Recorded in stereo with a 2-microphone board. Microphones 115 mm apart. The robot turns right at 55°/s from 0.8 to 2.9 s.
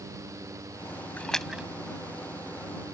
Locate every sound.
1.2 s a splash: 15° left (ahead or behind); by 1.7 s 10° right (ahead or behind)